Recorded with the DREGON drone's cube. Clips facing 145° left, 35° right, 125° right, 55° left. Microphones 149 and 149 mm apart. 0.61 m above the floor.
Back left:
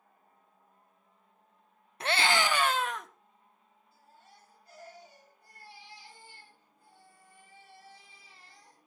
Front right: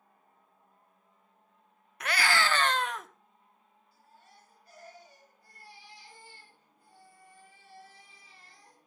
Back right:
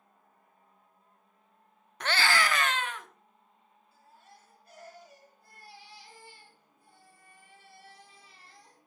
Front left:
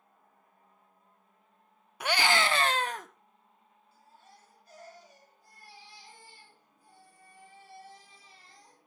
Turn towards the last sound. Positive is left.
turn(degrees=-150)